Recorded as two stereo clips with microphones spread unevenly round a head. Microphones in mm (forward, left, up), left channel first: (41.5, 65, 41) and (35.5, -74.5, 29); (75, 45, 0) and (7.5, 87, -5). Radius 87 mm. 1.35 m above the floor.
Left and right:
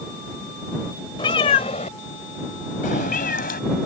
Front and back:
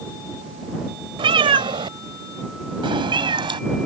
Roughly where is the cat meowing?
Behind left.